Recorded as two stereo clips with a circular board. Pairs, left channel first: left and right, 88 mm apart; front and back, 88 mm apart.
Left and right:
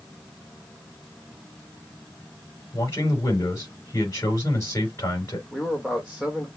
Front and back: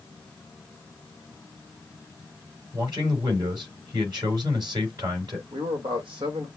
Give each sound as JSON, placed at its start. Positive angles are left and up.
{"t": 2.7, "sound": "a man speaking", "azimuth_deg": 145, "distance_m": 4.5}
{"t": 5.5, "sound": "a man speaking", "azimuth_deg": 180, "distance_m": 1.3}